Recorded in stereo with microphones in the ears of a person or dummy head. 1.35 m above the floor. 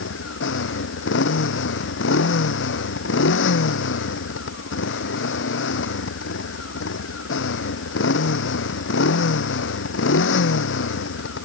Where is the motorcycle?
75° left (ahead or behind).